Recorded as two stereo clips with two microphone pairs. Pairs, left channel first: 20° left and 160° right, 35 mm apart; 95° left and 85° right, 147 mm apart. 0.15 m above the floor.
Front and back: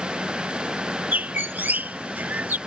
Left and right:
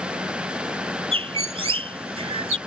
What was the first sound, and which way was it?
A bird, 130° right.